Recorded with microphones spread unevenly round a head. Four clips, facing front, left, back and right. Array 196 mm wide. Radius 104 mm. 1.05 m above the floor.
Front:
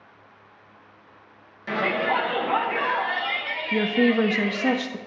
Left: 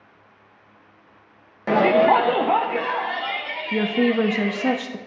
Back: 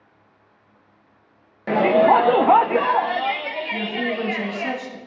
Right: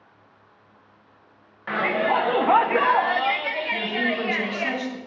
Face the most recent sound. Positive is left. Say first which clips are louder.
# left 9 dB, front 7 dB
turn(degrees=40)